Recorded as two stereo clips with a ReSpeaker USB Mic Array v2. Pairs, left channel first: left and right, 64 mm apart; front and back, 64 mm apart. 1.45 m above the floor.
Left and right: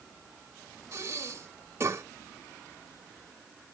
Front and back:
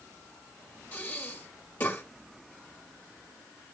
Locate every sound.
0.9 s breathing: 55° right, 1.5 m